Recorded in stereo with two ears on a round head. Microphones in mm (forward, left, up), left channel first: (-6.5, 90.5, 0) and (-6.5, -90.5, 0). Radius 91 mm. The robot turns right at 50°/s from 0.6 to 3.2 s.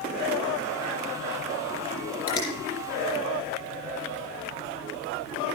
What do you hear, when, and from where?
2.3 s a finger snap: 20° left (ahead or behind), 5.5 m; by 2.5 s 30° left (ahead or behind), 5.5 m